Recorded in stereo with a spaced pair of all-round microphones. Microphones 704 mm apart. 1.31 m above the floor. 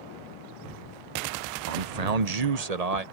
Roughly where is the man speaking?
Right.